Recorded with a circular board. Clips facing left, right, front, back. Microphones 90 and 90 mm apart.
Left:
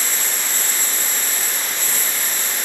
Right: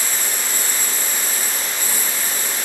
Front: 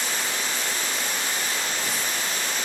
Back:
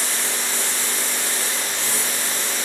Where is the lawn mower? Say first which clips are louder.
Even, back 1 dB; 170° right.